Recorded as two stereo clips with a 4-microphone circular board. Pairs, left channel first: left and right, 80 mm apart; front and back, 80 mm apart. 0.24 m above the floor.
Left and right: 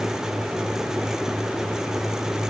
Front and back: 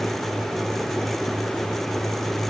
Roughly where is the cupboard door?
I don't hear a cupboard door.